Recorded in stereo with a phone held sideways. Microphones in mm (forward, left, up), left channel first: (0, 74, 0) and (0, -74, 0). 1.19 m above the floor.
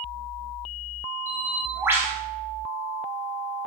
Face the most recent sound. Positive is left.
turn(degrees=-15)  # may be behind; listen again after turning